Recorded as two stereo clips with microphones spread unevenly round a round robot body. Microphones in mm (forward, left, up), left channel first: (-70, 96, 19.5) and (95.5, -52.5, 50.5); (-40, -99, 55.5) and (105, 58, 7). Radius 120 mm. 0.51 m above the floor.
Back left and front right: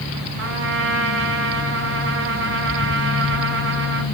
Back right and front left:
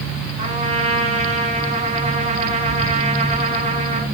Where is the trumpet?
10° right, 6 m.